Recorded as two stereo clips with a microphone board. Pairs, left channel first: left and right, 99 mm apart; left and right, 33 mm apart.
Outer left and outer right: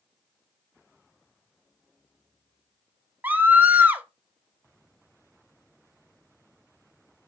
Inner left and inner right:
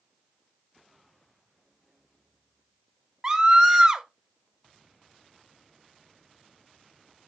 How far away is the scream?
About 0.8 m.